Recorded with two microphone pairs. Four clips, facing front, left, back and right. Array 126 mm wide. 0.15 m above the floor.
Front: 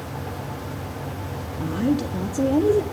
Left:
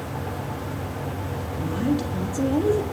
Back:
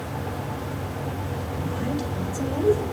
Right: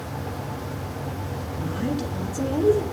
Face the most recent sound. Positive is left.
turn(degrees=10)